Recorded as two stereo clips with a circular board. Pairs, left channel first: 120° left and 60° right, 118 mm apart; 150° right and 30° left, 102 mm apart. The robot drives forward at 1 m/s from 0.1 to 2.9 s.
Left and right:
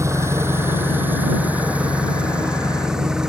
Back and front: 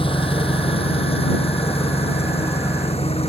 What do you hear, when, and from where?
0.0 s an engine running: 125° right; by 3.3 s 145° right